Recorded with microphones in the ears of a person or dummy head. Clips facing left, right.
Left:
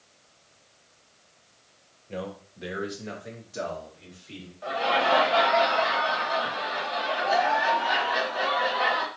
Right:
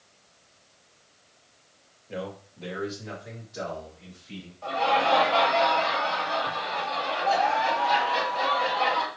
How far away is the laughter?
About 1.4 m.